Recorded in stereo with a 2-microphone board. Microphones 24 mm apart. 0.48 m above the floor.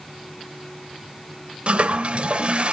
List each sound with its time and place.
1.7 s a toilet flushing: 50° right (ahead or behind), 1.6 m